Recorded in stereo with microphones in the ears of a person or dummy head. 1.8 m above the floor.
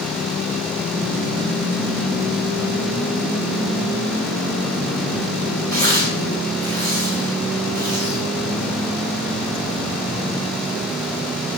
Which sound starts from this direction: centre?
Tearing paper, at 5.7 s.